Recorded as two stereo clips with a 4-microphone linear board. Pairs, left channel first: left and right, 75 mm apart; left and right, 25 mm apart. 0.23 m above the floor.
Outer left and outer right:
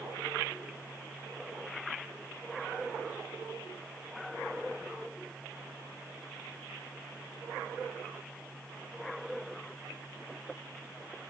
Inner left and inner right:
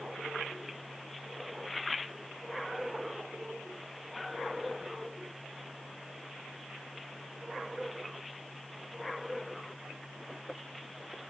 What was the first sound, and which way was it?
Only background noise.